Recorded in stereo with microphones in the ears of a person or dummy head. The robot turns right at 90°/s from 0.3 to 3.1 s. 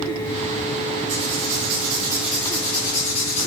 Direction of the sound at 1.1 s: 110° right.